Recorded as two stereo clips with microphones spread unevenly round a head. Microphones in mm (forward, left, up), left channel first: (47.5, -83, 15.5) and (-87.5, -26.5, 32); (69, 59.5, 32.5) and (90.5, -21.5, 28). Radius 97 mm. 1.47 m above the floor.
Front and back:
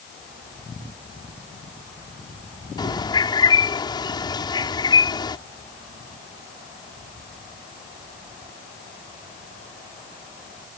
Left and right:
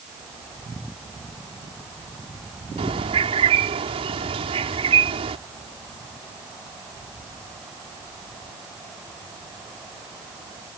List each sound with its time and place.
2.8 s a bird: 85° right